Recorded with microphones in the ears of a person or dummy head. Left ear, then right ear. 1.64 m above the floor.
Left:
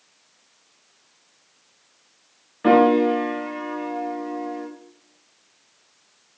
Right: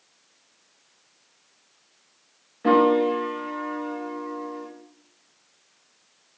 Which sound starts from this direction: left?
A piano, at 2.6 s.